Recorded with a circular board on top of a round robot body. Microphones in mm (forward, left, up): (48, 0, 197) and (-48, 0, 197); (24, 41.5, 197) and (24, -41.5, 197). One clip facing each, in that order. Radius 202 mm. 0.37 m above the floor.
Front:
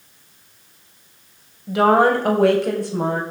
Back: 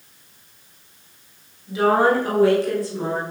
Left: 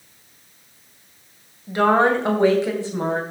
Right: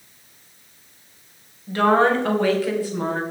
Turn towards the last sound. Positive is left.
turn(degrees=25)